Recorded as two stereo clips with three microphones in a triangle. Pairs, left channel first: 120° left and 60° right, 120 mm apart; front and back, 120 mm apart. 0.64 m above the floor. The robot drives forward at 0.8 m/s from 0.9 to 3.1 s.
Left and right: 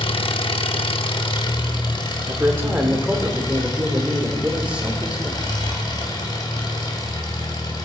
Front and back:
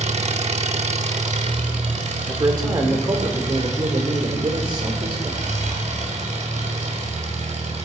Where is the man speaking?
120° right, 1.8 m; by 5.4 s 140° right, 2 m.